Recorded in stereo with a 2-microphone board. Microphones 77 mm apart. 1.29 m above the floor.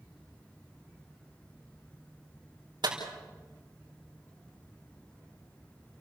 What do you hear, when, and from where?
2.8 s a clap: 70° right (ahead or behind), 4.5 m